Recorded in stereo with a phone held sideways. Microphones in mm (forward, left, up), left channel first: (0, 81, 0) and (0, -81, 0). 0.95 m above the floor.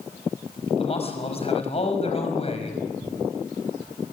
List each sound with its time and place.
0.8 s a man speaking: 40° left (ahead or behind), 5.5 m